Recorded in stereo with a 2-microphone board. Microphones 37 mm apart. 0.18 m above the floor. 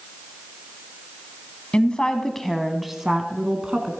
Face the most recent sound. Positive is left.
turn(degrees=-30)  # may be behind; listen again after turning